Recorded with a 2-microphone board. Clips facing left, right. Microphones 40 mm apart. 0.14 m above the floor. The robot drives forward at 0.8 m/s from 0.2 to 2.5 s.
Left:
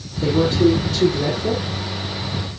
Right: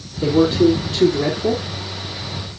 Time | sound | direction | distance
0.2 | a man speaking | 30° right (ahead or behind) | 3 m